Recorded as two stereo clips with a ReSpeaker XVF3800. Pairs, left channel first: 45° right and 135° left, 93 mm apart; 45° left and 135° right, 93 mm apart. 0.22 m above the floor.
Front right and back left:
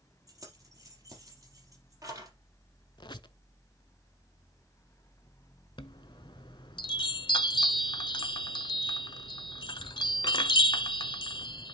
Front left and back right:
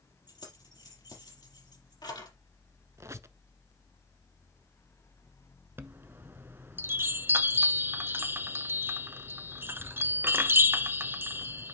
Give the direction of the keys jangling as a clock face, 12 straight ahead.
9 o'clock.